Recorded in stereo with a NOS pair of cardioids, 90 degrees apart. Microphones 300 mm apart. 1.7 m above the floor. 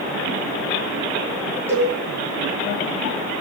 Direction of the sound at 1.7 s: 10° right.